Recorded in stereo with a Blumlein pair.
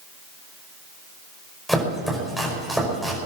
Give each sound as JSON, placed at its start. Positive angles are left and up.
{"t": 1.7, "sound": "chopping", "azimuth_deg": 0, "distance_m": 5.5}